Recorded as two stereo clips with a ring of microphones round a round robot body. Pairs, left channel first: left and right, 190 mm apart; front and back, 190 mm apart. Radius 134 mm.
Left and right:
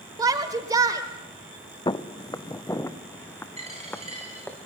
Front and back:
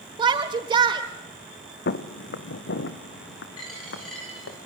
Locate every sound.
0.2 s a shout: 140° right, 1.3 m
1.9 s footsteps: 25° left, 1.4 m; by 4.6 s 10° left, 3.5 m
3.6 s a dropped coin: 35° right, 9 m